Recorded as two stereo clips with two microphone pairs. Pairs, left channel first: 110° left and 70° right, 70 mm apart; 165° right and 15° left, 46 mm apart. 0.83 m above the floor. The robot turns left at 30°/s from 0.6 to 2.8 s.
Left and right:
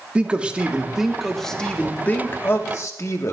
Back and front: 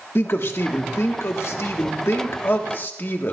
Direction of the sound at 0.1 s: 140° right.